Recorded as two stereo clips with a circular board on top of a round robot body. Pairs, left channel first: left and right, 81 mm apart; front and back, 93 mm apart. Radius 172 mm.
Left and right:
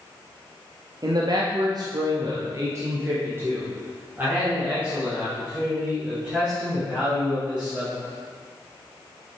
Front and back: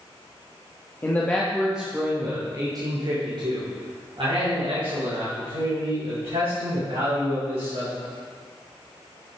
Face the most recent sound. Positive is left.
turn(degrees=-170)